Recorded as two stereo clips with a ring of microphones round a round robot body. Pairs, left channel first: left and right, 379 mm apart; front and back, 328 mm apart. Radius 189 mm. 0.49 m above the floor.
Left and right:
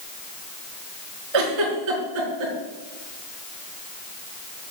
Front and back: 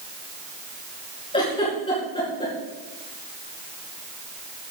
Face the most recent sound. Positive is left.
turn(degrees=-75)